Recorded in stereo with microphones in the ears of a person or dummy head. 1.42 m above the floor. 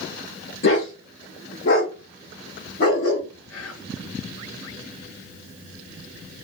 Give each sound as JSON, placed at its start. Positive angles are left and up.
{"t": 0.6, "sound": "a dog barking", "side_deg": 55, "distance_m": 1.7}
{"t": 3.5, "sound": "whispering", "side_deg": 70, "distance_m": 0.8}